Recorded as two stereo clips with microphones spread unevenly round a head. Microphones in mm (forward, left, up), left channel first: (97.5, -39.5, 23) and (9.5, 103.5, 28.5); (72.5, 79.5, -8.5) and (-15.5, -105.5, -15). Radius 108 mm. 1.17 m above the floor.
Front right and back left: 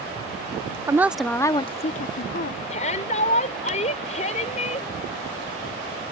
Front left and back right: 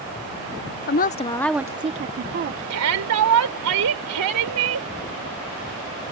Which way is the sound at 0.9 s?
50° left.